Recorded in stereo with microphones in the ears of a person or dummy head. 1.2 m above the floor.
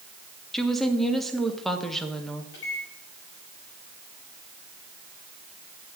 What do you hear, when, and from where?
0.5 s a woman speaking: 5° left (ahead or behind), 1.5 m
2.5 s a microwave: 70° left (ahead or behind), 6 m